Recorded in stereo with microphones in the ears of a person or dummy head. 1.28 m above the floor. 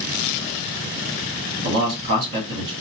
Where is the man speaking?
55° right (ahead or behind), 1.4 m.